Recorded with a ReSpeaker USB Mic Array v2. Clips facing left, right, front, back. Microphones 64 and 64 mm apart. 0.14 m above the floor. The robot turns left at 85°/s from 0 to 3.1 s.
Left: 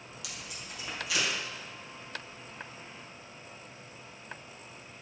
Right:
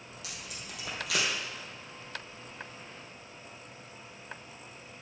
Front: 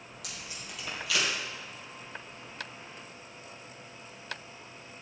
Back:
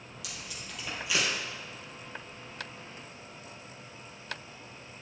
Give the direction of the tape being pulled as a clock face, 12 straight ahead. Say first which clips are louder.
Even, even; 1 o'clock.